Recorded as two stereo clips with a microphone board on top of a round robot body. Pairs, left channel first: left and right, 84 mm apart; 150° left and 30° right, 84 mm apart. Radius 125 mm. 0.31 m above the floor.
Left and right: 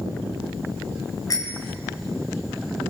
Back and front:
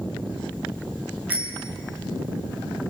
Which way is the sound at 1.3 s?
45° left.